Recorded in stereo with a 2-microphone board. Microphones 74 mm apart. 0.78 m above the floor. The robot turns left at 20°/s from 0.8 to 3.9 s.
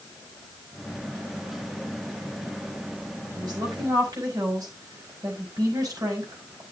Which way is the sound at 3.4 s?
65° right (ahead or behind).